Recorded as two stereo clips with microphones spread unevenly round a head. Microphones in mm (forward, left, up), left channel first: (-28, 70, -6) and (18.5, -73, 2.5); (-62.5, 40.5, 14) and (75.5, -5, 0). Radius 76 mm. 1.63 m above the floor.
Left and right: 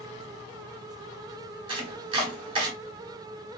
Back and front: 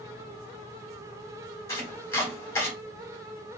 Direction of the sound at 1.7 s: 125° right.